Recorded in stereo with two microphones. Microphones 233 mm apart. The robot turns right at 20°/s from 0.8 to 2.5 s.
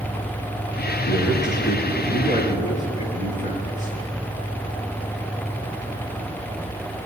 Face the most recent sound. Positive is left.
turn(degrees=30)  # may be behind; listen again after turning